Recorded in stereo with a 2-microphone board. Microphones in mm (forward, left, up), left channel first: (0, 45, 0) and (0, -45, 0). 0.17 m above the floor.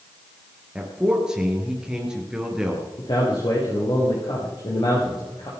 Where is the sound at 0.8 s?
10° right (ahead or behind), 3.5 m.